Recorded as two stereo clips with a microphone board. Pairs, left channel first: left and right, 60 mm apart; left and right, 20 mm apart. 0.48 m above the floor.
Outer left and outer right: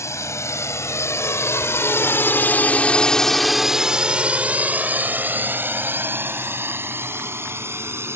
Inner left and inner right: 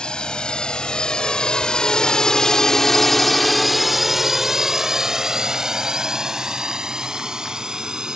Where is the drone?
55° left (ahead or behind); by 8.2 s 45° right (ahead or behind).